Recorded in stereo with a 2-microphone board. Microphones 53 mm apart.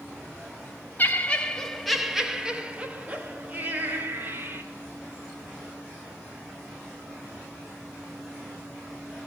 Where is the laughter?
35° left (ahead or behind), 0.9 m; by 4.6 s 45° right (ahead or behind), 2 m.